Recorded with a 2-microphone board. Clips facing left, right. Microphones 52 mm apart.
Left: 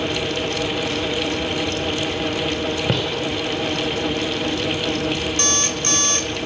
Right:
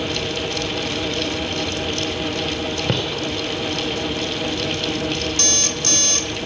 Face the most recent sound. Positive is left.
turn(degrees=25)  # may be behind; listen again after turning